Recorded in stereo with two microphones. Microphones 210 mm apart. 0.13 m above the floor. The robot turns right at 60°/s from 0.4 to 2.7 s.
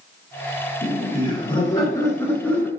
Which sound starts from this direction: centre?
Laughter, at 0.8 s.